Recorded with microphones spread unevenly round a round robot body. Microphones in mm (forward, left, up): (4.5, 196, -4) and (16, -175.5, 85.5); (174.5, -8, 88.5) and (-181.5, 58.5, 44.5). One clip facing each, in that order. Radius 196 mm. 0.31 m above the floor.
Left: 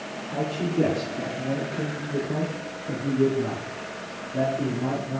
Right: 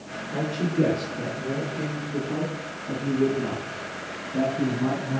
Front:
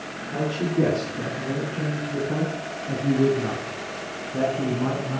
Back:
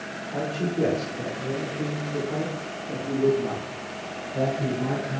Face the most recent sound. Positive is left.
turn(degrees=-25)